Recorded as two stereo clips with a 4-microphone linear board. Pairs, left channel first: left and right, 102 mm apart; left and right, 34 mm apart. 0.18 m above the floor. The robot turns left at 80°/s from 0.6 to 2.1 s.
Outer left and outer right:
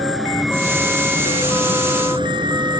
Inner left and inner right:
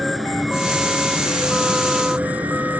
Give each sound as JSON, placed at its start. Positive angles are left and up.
{"t": 0.0, "sound": "an insect", "azimuth_deg": 0}